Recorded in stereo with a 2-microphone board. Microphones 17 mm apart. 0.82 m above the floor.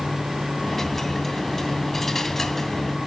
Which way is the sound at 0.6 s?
20° left (ahead or behind).